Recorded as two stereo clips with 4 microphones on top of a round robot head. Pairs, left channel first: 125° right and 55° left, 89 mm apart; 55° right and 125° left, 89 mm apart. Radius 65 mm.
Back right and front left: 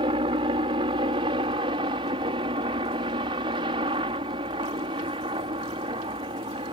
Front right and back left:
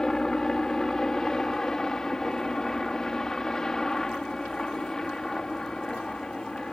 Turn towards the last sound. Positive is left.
turn(degrees=30)